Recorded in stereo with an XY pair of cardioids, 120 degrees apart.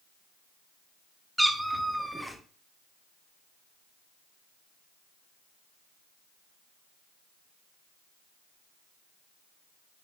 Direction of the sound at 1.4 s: Straight ahead.